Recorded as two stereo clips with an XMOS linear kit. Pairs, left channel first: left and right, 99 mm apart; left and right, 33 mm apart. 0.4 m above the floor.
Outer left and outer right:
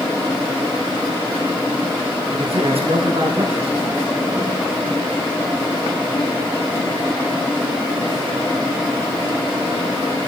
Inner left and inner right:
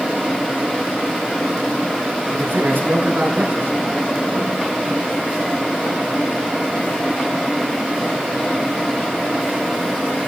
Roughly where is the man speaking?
Right.